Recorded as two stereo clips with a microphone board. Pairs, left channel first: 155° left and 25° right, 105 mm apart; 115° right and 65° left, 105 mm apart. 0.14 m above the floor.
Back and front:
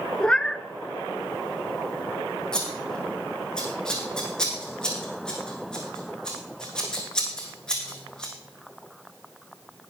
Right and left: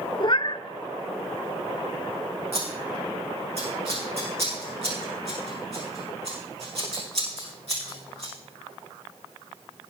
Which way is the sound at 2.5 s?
75° left.